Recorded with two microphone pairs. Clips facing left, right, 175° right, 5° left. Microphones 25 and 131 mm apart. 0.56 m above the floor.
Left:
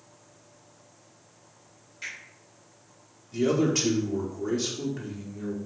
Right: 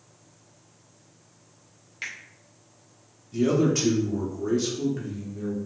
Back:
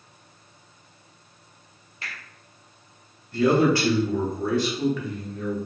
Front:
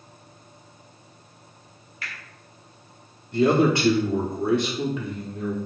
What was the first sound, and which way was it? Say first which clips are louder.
A finger snap: right 2 dB, even; 115° right.